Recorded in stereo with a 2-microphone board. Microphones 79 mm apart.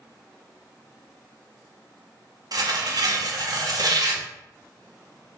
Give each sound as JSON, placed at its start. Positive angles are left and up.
{"t": 2.5, "sound": "tearing paper", "side_deg": -55, "distance_m": 0.6}